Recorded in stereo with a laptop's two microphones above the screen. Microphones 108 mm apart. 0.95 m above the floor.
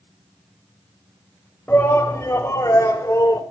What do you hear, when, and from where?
1.7 s a shout: 20° left (ahead or behind), 5 m; by 3.4 s 35° left (ahead or behind), 4 m